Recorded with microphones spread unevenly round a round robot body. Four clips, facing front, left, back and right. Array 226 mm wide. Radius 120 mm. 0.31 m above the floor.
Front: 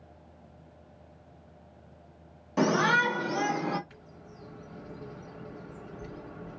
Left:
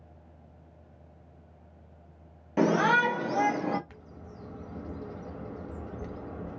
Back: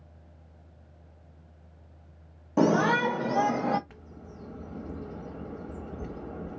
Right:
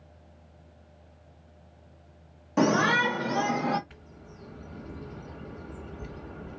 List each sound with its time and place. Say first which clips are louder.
2.6 s a shout: even, back 2 dB; 175° left, 1.1 m; by 3.8 s 170° left, 1.6 m
3.9 s a bird: left 2 dB, back 3 dB; 150° left, 1.0 m